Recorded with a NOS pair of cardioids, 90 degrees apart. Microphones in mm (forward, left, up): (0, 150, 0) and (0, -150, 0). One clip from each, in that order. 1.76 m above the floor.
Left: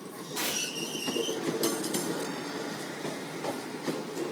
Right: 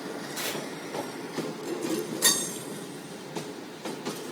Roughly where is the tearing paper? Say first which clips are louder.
Left 3 dB; ahead.